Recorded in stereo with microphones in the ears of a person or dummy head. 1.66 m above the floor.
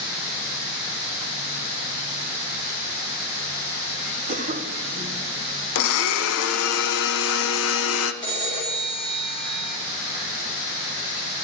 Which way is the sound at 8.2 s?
20° left (ahead or behind).